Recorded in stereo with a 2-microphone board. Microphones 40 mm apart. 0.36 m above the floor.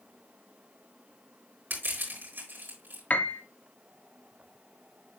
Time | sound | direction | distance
1.7 | crushing | 60° right (ahead or behind) | 5.5 m
3.1 | a piano | 40° left (ahead or behind) | 0.8 m